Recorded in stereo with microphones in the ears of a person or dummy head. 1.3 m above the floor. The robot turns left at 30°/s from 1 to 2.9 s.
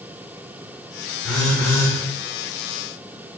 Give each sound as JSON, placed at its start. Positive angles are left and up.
{"t": 1.2, "sound": "a phone buzzing", "side_deg": 0, "distance_m": 4.0}